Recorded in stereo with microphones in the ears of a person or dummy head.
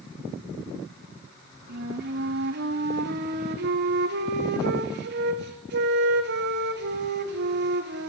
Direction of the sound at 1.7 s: 60° right (ahead or behind).